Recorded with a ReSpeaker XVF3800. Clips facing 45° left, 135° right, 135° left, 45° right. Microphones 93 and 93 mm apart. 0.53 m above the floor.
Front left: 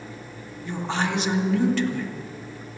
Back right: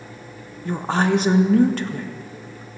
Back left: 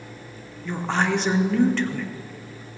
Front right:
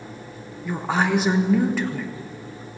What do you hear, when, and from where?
0.7 s a woman speaking: 125° right, 0.8 m